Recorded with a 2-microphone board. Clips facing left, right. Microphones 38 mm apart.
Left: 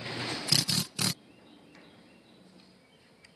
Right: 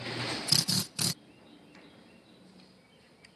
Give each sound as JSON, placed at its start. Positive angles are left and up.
{"t": 0.5, "sound": "a drill", "side_deg": 40}